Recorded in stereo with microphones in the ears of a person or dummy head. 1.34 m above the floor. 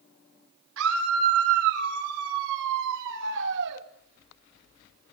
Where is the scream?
75° right (ahead or behind), 4.5 m; by 3.8 s 55° right (ahead or behind), 2 m.